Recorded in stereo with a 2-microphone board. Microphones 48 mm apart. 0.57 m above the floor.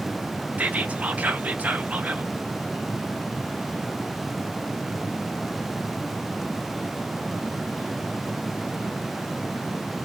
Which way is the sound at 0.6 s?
30° right (ahead or behind).